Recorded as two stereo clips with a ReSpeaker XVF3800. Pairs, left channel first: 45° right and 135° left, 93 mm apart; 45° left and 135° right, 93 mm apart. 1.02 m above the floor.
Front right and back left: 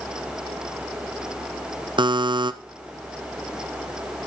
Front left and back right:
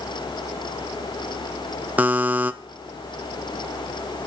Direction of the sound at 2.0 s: 155° left.